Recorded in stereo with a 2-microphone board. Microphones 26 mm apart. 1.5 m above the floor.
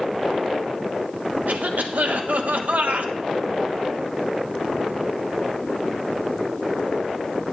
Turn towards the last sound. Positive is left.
turn(degrees=-80)